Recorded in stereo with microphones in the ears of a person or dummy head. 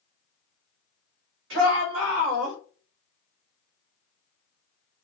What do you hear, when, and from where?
1.5 s a shout: 80° right, 3 m; by 2.6 s 65° right (ahead or behind), 3.5 m